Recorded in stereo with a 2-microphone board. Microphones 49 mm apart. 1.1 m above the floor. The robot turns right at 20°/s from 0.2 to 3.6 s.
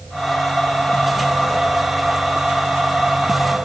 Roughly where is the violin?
No violin in this recording.